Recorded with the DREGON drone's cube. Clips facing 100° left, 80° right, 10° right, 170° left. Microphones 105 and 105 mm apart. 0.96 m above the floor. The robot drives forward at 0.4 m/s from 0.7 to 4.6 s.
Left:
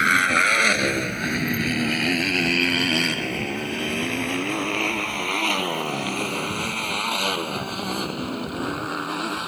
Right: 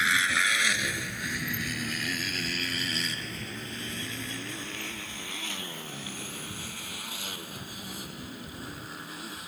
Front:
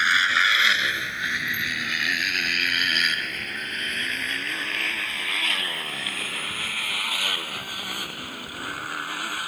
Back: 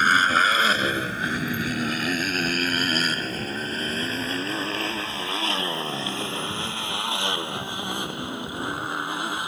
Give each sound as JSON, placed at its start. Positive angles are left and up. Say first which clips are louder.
{"t": 0.0, "sound": "a motorcycle", "louder": "left 8 dB, back 4 dB", "azimuth_deg": 125}